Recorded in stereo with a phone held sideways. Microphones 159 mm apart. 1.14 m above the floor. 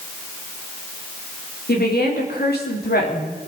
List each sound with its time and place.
1.7 s a woman speaking: 80° left, 3 m